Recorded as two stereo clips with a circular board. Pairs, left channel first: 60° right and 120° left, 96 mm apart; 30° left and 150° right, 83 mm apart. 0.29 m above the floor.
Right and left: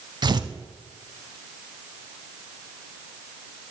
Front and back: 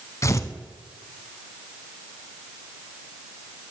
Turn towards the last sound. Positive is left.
turn(degrees=80)